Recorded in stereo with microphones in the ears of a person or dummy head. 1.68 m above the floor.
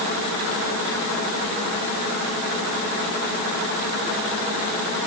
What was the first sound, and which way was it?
Only background noise.